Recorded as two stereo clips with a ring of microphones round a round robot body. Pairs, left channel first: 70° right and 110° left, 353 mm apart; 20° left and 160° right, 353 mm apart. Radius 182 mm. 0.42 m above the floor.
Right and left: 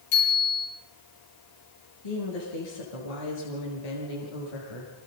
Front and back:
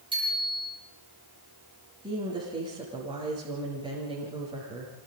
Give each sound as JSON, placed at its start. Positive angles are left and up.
{"t": 0.1, "sound": "a bicycle bell", "azimuth_deg": -80, "distance_m": 10.0}
{"t": 2.0, "sound": "a woman speaking", "azimuth_deg": -80, "distance_m": 8.5}